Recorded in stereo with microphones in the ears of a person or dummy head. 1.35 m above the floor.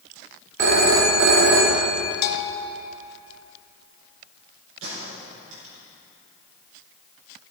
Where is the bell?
55° left (ahead or behind), 1.1 m.